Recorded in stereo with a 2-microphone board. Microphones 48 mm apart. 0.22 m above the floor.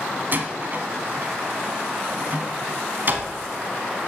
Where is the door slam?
45° right (ahead or behind), 1.1 m.